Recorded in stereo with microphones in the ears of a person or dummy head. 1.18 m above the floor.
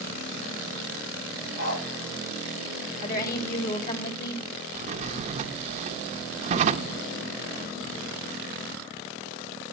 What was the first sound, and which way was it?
A dog barking, 45° left (ahead or behind).